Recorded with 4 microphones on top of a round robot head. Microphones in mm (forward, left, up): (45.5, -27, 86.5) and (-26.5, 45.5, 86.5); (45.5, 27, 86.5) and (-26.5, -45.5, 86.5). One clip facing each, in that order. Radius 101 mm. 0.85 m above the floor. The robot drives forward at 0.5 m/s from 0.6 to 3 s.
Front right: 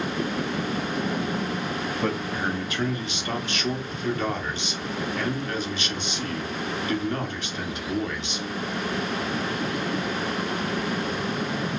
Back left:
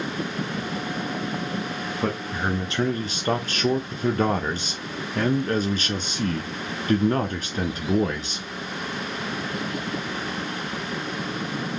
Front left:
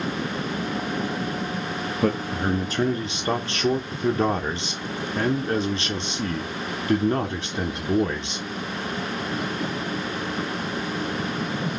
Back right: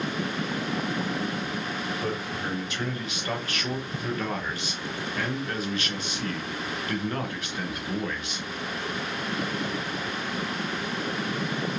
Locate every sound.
2.0 s a man speaking: 50° left, 0.8 m; by 8.5 s 100° left, 0.7 m